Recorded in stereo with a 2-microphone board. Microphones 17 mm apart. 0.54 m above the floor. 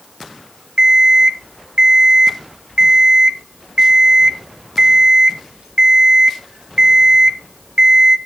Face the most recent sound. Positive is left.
turn(degrees=-75)  # may be behind; listen again after turning